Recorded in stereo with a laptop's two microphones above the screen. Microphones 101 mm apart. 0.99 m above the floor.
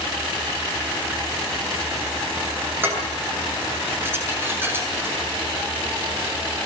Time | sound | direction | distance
2.8 | dishes clattering | 20° right (ahead or behind) | 8 m